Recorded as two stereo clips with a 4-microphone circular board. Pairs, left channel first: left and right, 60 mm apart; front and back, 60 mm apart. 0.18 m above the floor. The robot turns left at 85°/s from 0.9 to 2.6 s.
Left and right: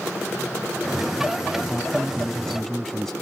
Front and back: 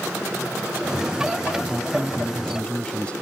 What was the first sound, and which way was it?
A man speaking, 105° left.